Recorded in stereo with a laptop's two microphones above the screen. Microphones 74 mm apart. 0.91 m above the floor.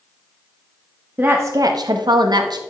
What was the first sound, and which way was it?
A woman speaking, 20° right (ahead or behind).